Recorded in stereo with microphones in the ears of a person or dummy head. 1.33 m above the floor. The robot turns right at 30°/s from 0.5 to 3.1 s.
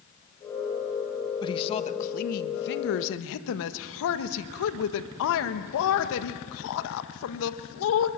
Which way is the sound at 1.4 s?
25° left.